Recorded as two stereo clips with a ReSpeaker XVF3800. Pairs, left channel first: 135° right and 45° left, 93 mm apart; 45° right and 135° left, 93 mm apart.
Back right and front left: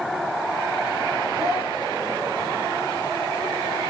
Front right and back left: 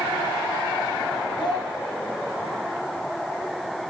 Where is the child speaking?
15° right, 6 m.